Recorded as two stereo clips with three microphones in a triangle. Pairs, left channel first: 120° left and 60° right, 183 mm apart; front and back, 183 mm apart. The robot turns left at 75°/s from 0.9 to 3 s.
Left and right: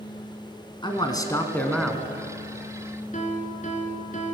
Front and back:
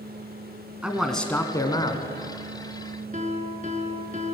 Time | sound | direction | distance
0.8 | a man speaking | 100° left | 1.3 m
3.1 | a piano | 150° left | 1.2 m